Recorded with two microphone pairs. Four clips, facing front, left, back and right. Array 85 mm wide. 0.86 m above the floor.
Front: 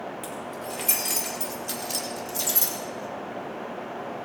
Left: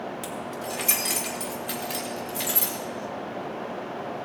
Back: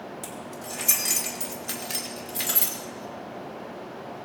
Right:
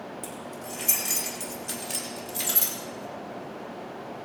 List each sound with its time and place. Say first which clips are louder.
0.2 s keys jangling: left 5 dB, front 3 dB; 115° left, 2 m; by 2.8 s straight behind, 2 m